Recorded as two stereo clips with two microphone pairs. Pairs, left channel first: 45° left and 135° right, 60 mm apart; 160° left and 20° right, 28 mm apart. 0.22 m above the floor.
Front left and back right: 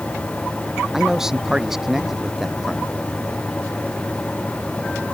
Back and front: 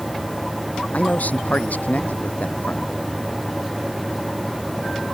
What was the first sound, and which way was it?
A man speaking, 140° left.